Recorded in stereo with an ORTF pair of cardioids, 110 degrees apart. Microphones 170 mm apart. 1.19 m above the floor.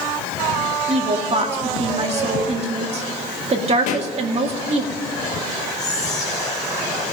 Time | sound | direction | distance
0.9 | a woman speaking | 40° right | 2 m
3.9 | a pop | 50° left | 1.2 m
5.8 | whispering | 50° left | 1.4 m